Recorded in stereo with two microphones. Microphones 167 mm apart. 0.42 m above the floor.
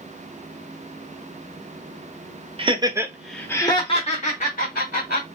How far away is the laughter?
About 1.0 m.